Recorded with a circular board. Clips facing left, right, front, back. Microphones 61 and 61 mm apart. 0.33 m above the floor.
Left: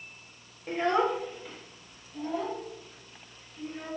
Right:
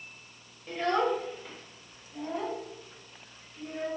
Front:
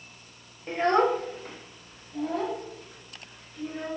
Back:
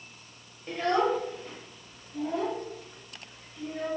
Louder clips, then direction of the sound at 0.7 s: Left 1 dB, front 3 dB; 55° left.